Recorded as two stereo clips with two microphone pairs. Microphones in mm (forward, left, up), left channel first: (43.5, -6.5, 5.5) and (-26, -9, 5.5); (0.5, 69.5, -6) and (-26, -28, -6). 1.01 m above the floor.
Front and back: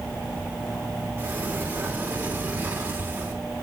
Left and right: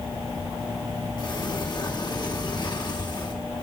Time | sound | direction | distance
1.2 | a sliding door | 120° left | 2.5 m